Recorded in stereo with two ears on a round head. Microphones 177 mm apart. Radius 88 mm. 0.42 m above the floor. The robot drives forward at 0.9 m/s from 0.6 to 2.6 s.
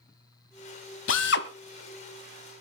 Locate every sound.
1.1 s a drill: 70° left (ahead or behind), 1.2 m; by 1.5 s 55° left (ahead or behind), 1.4 m